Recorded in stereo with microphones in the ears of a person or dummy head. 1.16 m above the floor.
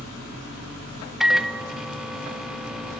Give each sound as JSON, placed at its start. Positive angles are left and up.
{"t": 1.2, "sound": "a microwave", "side_deg": -5, "distance_m": 0.5}